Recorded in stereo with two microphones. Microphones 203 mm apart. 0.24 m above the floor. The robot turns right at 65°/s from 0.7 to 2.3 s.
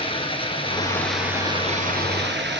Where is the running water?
150° left, 1.6 m; by 2.6 s 105° right, 1.6 m.